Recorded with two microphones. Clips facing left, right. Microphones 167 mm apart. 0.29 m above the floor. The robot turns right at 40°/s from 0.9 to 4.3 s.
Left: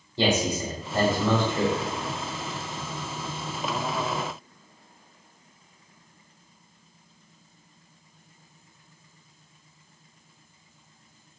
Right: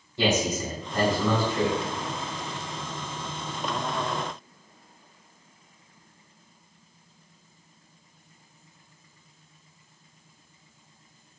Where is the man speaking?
120° left, 1.1 m; by 1.8 s 155° left, 1.1 m.